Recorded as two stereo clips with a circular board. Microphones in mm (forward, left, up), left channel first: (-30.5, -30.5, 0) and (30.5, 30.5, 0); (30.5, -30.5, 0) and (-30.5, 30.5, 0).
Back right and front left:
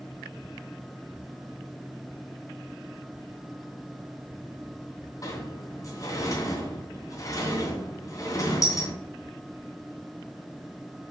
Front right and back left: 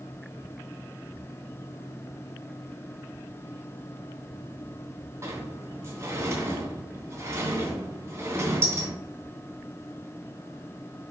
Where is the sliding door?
175° right, 2.5 m.